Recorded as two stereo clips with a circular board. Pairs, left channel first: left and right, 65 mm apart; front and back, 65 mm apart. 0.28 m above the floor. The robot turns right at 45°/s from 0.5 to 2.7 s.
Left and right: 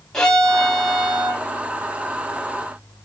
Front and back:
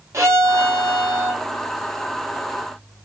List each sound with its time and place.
0.1 s a violin: 165° left, 1.0 m; by 1.4 s 150° right, 1.0 m